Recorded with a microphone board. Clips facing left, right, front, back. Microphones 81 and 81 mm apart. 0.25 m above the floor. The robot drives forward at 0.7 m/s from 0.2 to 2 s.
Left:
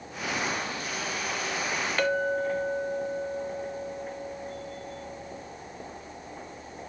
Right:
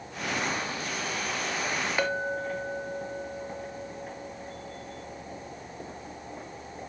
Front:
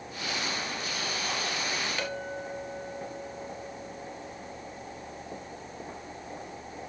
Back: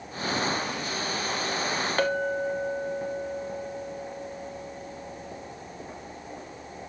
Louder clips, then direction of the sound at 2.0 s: Left 5 dB, back 9 dB; 160° right.